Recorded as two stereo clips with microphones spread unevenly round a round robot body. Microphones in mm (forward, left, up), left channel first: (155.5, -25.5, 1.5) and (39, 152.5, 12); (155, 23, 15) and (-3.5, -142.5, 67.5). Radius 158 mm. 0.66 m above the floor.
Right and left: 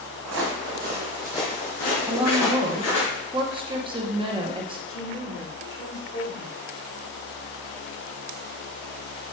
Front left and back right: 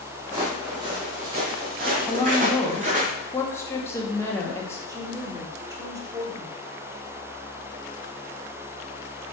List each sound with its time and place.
0.2 s footsteps: 140° left, 1.5 m; by 3.1 s 80° right, 2.5 m
2.1 s a woman speaking: 80° left, 0.7 m
4.9 s a woman speaking: 50° right, 1.8 m